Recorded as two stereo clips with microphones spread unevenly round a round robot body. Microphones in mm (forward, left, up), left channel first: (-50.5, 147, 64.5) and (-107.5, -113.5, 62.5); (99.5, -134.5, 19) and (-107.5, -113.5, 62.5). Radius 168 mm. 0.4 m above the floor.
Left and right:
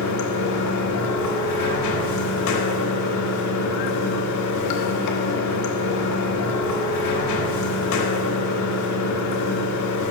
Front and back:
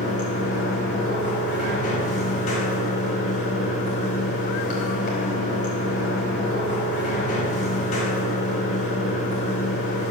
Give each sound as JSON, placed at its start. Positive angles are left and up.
{"t": 0.0, "sound": "running water", "azimuth_deg": 50, "distance_m": 0.9}